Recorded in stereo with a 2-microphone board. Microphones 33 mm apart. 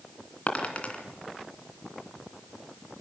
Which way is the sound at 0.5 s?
45° left (ahead or behind).